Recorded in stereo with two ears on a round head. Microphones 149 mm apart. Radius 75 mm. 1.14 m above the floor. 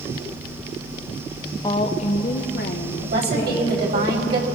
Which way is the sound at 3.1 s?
65° right (ahead or behind).